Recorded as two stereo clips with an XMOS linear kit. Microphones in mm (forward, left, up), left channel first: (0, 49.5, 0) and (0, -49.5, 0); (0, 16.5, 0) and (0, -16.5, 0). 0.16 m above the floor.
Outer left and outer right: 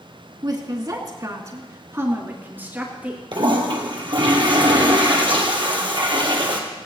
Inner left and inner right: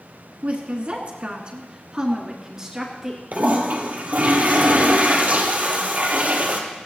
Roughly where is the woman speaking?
Right.